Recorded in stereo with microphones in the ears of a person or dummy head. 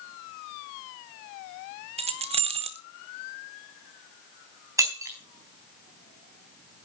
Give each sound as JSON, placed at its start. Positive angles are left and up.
{"t": 2.0, "sound": "keys jangling", "side_deg": -30, "distance_m": 0.7}
{"t": 4.8, "sound": "breaking glass", "side_deg": -15, "distance_m": 4.0}